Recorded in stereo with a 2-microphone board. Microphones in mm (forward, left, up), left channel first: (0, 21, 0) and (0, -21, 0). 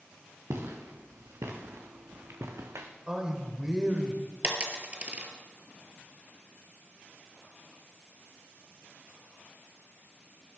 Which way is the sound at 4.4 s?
25° right (ahead or behind).